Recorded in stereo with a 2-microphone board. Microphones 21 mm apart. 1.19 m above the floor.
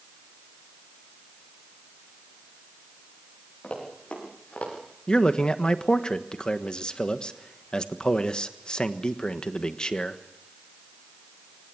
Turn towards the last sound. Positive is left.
turn(degrees=40)  # may be behind; listen again after turning